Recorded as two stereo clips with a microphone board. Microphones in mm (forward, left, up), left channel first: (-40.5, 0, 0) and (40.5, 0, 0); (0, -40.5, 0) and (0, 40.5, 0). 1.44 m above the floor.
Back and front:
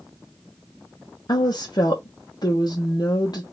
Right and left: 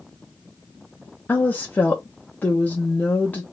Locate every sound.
1.3 s a woman speaking: 160° right, 0.6 m